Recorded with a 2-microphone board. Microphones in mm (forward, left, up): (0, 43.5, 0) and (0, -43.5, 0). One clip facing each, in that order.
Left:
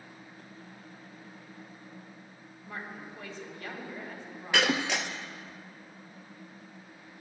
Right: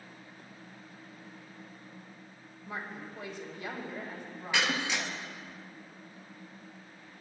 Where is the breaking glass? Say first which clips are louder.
Left 3 dB; 65° left (ahead or behind), 0.8 m.